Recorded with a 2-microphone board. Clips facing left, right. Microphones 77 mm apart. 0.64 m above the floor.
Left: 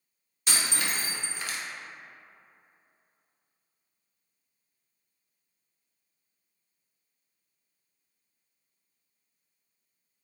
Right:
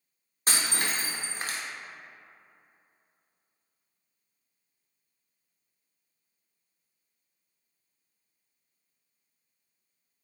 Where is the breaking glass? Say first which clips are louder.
Right 1 dB; 40° right (ahead or behind), 0.5 m.